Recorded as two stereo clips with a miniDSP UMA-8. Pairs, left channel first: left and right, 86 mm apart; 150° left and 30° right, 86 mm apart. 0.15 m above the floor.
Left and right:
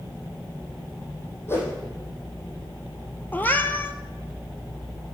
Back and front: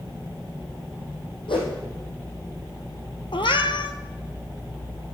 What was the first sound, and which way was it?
A whoosh, 150° left.